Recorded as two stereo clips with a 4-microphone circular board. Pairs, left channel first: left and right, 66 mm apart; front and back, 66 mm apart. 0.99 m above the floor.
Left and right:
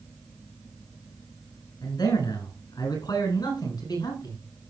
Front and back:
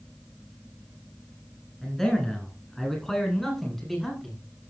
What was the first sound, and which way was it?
A man speaking, 85° left.